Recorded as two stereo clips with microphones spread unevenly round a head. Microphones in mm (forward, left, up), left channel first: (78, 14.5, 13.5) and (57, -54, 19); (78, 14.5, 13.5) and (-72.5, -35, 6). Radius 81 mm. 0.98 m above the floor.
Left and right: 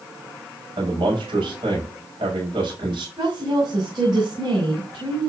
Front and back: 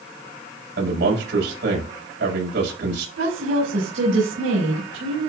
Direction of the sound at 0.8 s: 145° right.